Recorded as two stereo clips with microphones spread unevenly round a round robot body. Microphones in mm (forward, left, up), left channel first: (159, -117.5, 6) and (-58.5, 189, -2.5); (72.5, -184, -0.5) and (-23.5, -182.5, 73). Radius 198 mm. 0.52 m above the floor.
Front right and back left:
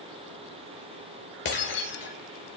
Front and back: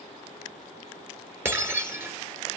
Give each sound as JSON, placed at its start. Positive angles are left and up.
{"t": 1.4, "sound": "breaking glass", "azimuth_deg": -120, "distance_m": 2.5}